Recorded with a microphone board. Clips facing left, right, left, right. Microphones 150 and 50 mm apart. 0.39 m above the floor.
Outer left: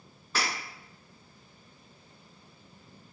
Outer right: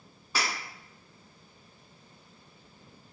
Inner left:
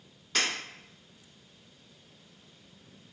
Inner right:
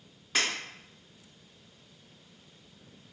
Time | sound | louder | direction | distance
0.3 | breaking glass | even, even | 10° right (ahead or behind) | 1.5 m